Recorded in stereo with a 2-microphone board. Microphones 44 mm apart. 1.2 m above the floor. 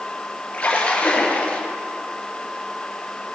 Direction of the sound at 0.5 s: 25° left (ahead or behind).